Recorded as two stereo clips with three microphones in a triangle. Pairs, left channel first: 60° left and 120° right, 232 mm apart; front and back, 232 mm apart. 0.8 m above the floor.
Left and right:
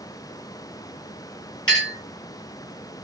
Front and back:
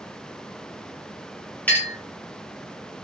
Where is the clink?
85° left, 2 m.